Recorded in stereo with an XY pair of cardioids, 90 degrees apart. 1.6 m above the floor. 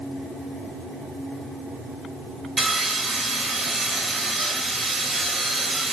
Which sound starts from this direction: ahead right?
Sawing, at 2.6 s.